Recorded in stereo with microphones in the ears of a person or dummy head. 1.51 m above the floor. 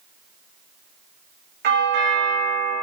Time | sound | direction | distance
1.6 | a doorbell | 55° right (ahead or behind) | 2.5 m